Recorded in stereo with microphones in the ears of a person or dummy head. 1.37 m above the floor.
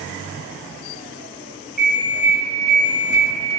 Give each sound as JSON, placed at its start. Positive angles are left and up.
{"t": 1.8, "sound": "an alarm clock", "side_deg": 0, "distance_m": 0.9}